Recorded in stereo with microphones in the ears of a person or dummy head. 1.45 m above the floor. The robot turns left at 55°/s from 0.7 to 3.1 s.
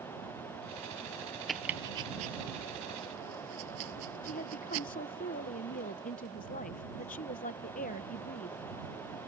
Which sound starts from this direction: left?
A woman speaking, at 4.2 s.